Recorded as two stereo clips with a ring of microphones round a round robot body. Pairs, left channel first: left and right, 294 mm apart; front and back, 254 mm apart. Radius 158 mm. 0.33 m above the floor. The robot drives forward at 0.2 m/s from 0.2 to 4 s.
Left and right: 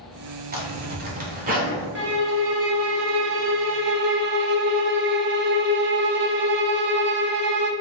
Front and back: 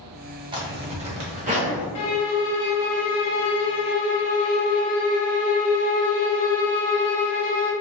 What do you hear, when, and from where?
0.5 s a zipper: 120° right, 1.0 m; by 1.9 s 140° right, 1.1 m
1.9 s a violin: 35° right, 0.7 m; by 7.7 s 65° right, 0.5 m